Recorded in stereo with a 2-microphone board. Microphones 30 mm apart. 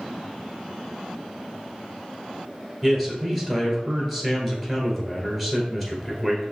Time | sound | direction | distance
2.8 | a man speaking | centre (ahead or behind) | 1.5 m